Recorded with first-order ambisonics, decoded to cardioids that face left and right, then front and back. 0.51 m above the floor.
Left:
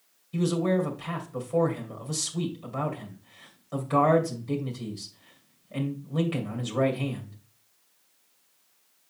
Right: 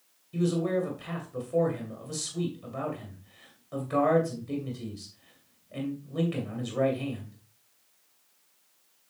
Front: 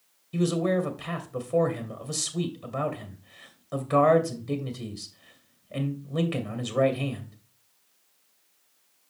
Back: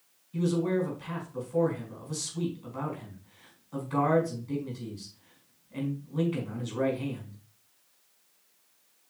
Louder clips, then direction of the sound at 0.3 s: Left 2 dB, front 3 dB; 5° left.